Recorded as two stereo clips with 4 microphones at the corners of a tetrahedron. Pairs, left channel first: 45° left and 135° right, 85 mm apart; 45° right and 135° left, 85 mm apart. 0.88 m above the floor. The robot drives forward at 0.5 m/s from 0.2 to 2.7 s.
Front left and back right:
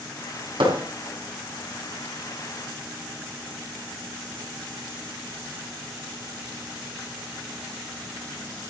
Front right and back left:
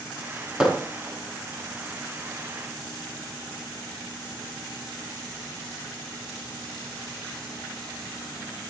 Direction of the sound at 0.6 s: 145° right.